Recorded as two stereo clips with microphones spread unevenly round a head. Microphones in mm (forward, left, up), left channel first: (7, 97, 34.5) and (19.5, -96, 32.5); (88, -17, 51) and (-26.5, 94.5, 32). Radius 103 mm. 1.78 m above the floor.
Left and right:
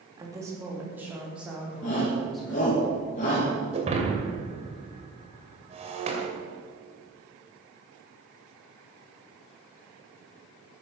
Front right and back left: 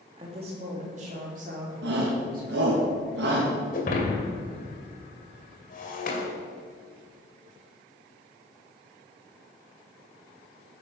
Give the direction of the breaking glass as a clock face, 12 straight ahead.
1 o'clock.